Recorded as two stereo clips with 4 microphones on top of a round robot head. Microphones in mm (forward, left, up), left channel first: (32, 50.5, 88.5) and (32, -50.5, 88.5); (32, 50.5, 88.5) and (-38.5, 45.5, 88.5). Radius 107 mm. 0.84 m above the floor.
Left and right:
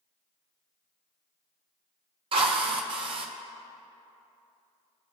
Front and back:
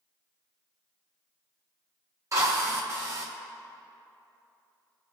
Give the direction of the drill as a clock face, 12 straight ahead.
4 o'clock.